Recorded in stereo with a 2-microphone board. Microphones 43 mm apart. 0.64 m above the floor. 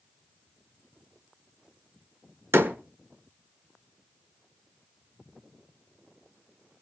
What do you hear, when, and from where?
2.5 s a door slam: 70° right (ahead or behind), 1.5 m